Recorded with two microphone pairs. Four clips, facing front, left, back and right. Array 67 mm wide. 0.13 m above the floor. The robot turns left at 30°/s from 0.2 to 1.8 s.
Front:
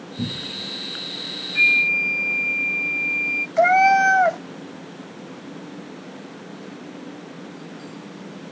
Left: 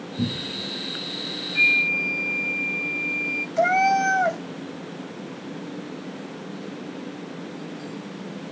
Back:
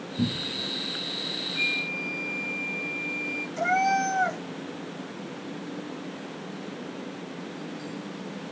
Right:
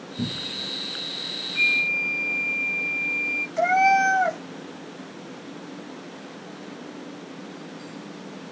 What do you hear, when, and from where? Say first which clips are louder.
0.2 s a cupboard door: left 3 dB, back 1 dB; 130° right, 0.6 m; by 0.7 s 145° right, 0.6 m
1.6 s a flute: left 2 dB, front 12 dB; 35° left, 0.7 m; by 3.5 s 25° left, 0.7 m
3.6 s a cat meowing: right 1 dB, front 9 dB; straight ahead, 0.7 m